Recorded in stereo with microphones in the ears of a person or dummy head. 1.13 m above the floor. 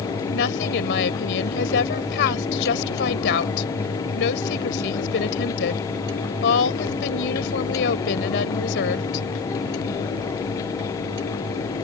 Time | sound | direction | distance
0.3 | a woman speaking | 65° left (ahead or behind) | ?